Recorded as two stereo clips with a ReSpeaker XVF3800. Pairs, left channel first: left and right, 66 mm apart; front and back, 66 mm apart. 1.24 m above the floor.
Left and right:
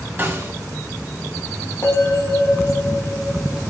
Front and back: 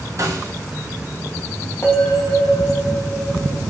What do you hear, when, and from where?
0.2 s a snare drum: 145° right, 1.6 m
1.8 s a bell: 50° left, 3 m